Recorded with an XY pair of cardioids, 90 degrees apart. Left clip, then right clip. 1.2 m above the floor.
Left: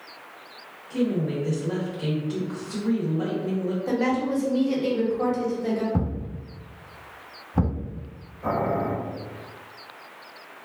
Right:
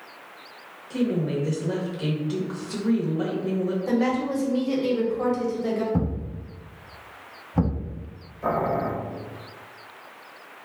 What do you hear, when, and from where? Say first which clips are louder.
0.9 s a woman speaking: even; 40° right, 1.0 m
3.9 s a woman speaking: left 1 dB; 15° right, 1.1 m
5.9 s a thud: right 1 dB; 5° right, 1.4 m
8.4 s boiling: right 1 dB; 60° right, 1.1 m